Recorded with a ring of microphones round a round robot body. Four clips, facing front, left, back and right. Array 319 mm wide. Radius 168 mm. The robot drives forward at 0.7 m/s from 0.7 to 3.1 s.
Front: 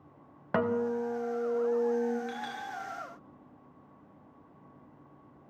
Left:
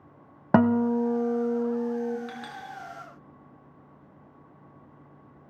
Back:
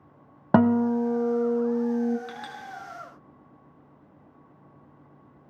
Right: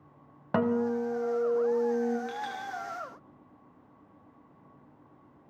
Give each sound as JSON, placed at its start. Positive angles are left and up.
{"t": 0.5, "sound": "a guitar", "azimuth_deg": 145, "distance_m": 1.0}
{"t": 2.3, "sound": "a clink", "azimuth_deg": 145, "distance_m": 4.5}